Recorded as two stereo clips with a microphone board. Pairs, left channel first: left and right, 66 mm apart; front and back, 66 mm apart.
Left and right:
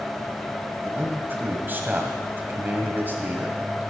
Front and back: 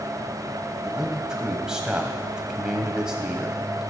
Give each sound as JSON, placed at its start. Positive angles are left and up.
{"t": 0.8, "sound": "a man speaking", "azimuth_deg": -110, "distance_m": 1.7}